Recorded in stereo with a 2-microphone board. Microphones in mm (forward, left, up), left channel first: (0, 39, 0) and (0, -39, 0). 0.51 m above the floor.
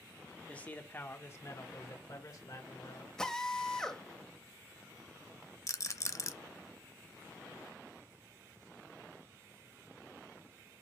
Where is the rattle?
40° left (ahead or behind), 0.6 m.